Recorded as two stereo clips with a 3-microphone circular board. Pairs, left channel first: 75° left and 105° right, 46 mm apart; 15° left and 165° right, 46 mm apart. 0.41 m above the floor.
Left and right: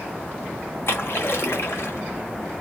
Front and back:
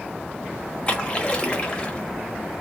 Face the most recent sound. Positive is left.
turn(degrees=80)